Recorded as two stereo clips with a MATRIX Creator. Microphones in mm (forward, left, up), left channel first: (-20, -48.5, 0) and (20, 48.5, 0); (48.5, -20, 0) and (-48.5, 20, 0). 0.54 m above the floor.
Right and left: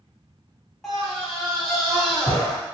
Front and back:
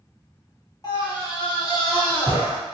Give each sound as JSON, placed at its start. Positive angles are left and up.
{"t": 0.8, "sound": "a scream", "azimuth_deg": -25, "distance_m": 1.1}